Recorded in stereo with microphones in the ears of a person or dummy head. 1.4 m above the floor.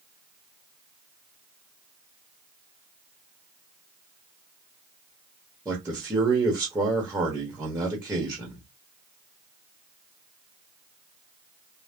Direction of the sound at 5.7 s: 10° right (ahead or behind).